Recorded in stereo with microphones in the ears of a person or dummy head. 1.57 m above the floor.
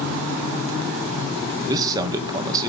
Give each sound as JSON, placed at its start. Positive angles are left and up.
{"t": 1.7, "sound": "a man speaking", "side_deg": -20, "distance_m": 1.6}